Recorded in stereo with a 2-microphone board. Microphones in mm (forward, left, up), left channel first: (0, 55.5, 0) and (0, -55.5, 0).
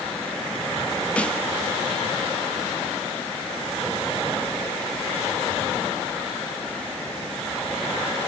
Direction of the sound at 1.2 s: 10° left (ahead or behind).